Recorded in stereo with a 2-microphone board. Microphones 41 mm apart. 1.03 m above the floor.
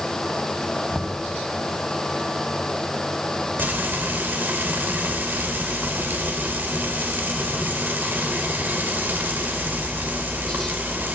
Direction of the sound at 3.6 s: 55° right (ahead or behind).